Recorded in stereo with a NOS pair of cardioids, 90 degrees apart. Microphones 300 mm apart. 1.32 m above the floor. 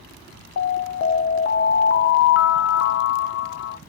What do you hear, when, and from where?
0.6 s an alarm: 45° left, 0.7 m